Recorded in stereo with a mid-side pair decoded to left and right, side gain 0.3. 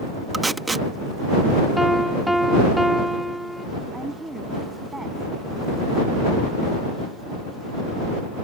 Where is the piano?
Straight ahead.